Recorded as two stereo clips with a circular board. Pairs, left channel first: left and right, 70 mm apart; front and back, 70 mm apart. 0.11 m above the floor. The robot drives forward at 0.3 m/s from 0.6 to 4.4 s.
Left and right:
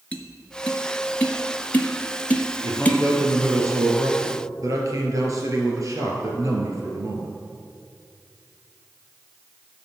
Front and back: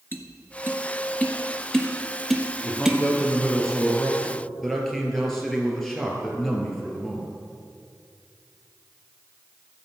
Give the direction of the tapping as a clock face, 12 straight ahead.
11 o'clock.